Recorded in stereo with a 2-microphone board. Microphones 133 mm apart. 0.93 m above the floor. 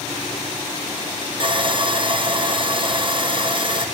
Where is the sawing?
40° right (ahead or behind), 0.7 m.